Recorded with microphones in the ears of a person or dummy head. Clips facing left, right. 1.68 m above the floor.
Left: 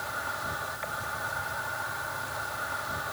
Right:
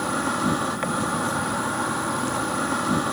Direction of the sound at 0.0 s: 70° right (ahead or behind).